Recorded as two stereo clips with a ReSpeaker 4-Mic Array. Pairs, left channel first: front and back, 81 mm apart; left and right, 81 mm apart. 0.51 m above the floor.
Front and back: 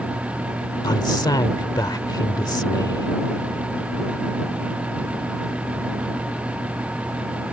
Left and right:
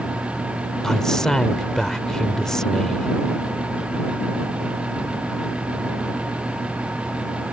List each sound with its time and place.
0.8 s a man speaking: 5° left